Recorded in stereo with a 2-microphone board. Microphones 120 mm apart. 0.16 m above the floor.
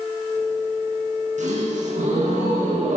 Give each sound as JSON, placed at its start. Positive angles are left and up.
{"t": 1.4, "sound": "a gasp", "side_deg": -75, "distance_m": 9.5}